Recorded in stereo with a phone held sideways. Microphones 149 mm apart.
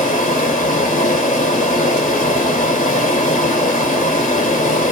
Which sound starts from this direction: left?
Running water, at 0.0 s.